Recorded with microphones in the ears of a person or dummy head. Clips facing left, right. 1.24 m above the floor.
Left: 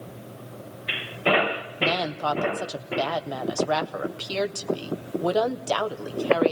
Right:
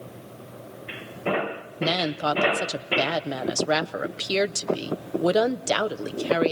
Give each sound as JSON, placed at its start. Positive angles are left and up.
{"t": 1.8, "sound": "a woman speaking", "side_deg": -25, "distance_m": 0.7}